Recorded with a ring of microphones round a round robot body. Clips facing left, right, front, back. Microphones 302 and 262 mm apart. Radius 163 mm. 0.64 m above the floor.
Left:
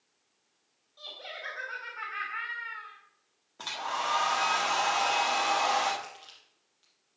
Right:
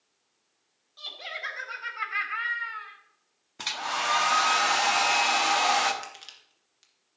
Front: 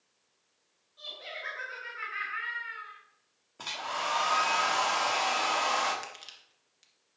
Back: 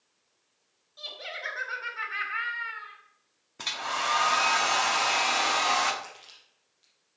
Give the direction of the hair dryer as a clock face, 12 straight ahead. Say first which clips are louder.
Right 2 dB, back 2 dB; 4 o'clock.